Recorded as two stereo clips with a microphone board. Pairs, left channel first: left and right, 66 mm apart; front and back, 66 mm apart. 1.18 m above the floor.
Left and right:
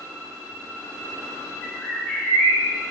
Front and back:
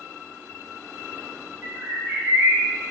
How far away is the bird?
About 0.7 m.